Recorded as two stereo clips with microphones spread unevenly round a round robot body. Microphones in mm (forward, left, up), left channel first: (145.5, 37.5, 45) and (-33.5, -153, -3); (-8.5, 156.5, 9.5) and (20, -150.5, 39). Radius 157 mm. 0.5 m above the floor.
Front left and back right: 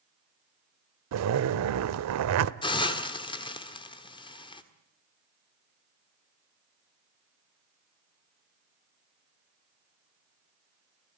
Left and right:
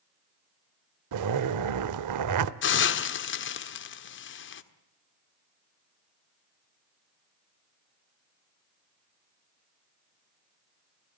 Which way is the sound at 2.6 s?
125° left.